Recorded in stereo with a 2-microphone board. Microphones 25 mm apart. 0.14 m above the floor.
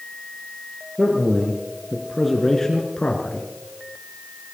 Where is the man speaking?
35° right (ahead or behind), 3 m; by 3.5 s 45° left (ahead or behind), 2.5 m.